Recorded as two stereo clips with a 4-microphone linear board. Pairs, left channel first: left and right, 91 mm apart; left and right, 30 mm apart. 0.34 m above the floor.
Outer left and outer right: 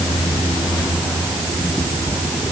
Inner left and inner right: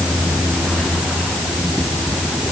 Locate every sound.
Only background noise.